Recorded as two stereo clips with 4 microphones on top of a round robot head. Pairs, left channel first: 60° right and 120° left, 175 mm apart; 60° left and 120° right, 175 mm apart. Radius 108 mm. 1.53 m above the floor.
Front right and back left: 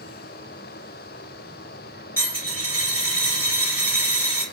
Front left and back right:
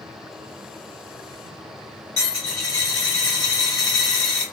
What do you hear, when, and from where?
2.2 s a dropped coin: 5° left, 1.0 m